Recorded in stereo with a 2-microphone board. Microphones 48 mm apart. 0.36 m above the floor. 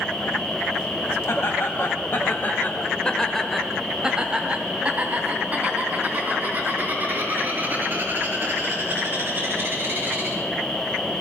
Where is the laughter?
55° left (ahead or behind), 2 m; by 10.3 s 45° right (ahead or behind), 8 m.